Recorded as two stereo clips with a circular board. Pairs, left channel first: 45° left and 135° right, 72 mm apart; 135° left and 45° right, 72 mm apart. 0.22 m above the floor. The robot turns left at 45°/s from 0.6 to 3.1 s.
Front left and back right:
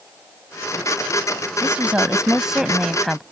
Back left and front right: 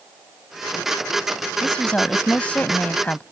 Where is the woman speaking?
165° right; by 3.2 s 125° left.